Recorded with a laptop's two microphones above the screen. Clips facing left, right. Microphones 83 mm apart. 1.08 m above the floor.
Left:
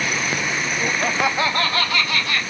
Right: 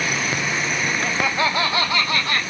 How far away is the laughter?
About 0.5 m.